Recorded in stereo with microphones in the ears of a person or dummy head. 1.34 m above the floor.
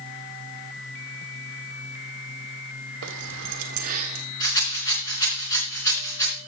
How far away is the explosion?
No explosion in this recording.